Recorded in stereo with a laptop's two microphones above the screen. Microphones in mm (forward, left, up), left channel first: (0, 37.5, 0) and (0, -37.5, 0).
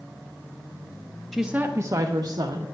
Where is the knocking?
I don't hear knocking.